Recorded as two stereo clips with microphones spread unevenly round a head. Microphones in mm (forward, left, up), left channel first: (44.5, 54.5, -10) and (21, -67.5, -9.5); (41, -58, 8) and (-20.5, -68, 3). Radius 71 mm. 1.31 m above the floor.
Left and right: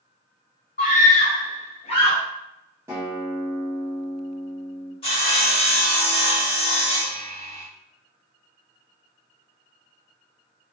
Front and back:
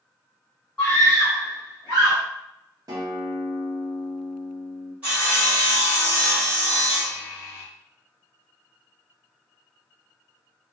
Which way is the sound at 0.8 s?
100° left.